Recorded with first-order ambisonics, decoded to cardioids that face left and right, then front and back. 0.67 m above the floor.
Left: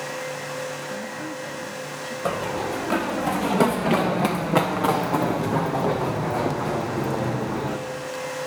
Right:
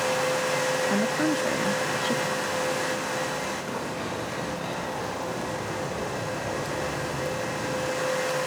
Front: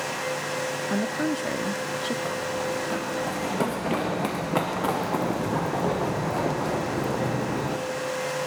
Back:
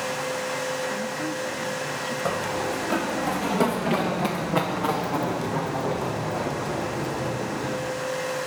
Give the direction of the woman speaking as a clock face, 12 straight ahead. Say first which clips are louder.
Right 7 dB, front 2 dB; 2 o'clock.